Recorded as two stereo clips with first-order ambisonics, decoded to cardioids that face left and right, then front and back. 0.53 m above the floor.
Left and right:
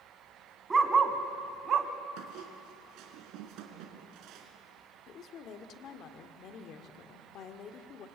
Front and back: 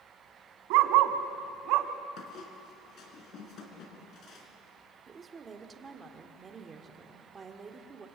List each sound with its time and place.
0.7 s a dog barking: 165° right, 1.7 m; by 1.9 s 145° right, 1.4 m
2.2 s a squeak: 55° right, 3.5 m
5.1 s a woman speaking: 120° left, 1.6 m